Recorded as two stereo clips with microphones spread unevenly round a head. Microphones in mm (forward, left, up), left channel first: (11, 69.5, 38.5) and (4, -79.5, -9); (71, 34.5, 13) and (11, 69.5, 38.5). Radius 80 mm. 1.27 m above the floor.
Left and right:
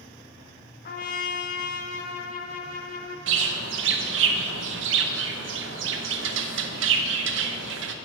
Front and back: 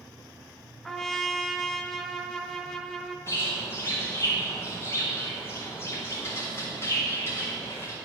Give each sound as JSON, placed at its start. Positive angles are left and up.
{"t": 0.8, "sound": "a trumpet", "azimuth_deg": 60, "distance_m": 0.7}
{"t": 3.3, "sound": "a bird", "azimuth_deg": -105, "distance_m": 0.6}